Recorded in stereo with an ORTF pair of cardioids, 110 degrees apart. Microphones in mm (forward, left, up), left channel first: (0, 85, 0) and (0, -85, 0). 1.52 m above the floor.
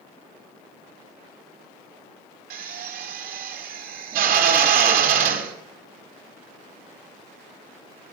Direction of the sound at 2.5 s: 65° right.